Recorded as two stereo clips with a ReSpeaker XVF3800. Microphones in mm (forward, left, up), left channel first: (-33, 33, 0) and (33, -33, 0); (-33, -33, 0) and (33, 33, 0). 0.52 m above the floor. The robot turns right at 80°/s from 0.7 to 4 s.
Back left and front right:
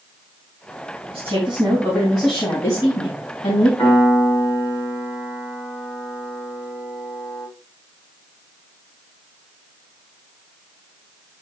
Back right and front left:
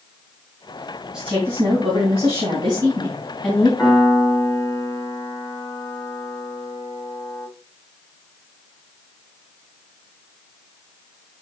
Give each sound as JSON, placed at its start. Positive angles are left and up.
{"t": 1.1, "sound": "a woman speaking", "azimuth_deg": -40, "distance_m": 3.5}
{"t": 3.8, "sound": "a piano", "azimuth_deg": 165, "distance_m": 4.5}